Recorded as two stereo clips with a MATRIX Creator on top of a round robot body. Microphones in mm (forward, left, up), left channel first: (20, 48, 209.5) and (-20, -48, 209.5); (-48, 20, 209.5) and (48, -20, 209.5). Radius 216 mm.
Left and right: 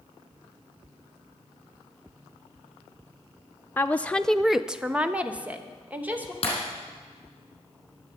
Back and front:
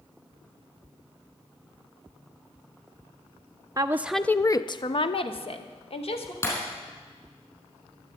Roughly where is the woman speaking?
Ahead.